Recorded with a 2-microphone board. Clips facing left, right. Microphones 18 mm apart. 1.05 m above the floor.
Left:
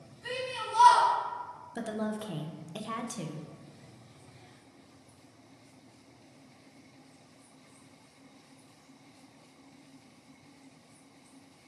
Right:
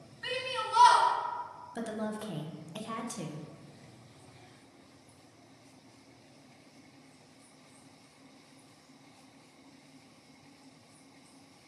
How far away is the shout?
About 2.5 m.